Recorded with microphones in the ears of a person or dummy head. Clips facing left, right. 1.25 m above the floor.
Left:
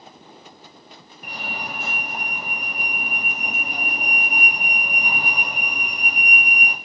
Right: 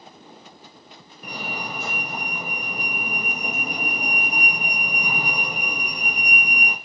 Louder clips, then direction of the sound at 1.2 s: Right 1 dB; 70° right (ahead or behind).